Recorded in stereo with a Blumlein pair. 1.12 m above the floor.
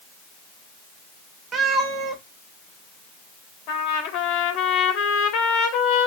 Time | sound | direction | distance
1.5 | a cat meowing | 25° right | 1.0 m
3.7 | a trumpet | 40° left | 1.0 m